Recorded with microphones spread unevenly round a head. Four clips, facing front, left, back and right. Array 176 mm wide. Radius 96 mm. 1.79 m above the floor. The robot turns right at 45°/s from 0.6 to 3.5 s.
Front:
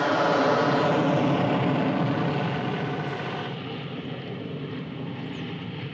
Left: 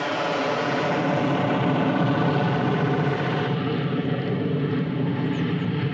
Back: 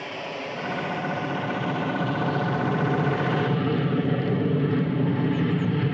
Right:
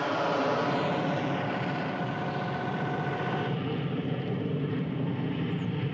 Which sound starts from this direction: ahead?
An aircraft, at 0.0 s.